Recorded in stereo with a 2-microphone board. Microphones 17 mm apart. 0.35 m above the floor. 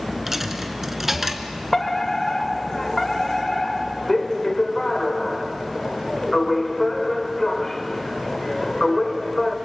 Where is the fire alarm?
20° left (ahead or behind), 1.8 m.